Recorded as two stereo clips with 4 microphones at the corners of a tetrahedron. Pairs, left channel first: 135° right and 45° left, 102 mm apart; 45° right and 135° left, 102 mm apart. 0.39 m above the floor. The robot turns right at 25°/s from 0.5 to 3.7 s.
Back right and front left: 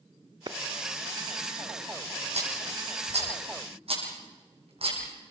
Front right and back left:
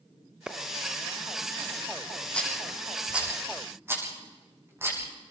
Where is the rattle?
35° left, 5.5 m; by 5.0 s 70° left, 5.5 m.